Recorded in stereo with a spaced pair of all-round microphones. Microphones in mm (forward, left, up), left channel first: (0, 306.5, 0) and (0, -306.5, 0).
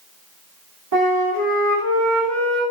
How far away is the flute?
About 1.7 m.